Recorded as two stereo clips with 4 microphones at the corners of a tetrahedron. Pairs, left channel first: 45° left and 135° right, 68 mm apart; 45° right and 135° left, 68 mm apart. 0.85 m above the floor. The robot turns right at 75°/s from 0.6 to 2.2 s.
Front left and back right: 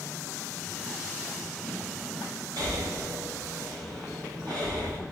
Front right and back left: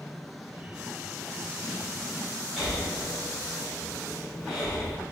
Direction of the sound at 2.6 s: 135° right.